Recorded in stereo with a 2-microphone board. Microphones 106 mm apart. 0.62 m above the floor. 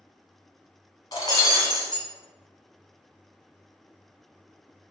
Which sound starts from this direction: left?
Breaking glass, at 1.1 s.